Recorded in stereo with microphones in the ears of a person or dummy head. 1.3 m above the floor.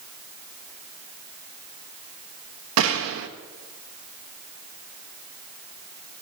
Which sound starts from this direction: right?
A gunshot, at 2.8 s.